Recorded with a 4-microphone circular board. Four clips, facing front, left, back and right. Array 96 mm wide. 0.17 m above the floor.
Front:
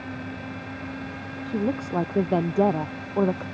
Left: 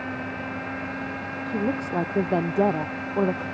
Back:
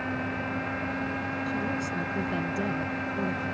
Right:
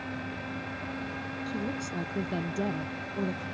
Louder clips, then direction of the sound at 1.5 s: Left 9 dB, front 8 dB; 45° left.